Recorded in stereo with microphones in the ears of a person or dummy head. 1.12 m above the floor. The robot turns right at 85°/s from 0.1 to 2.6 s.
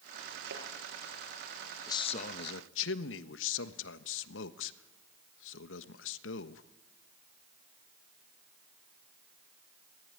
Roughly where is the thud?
Right.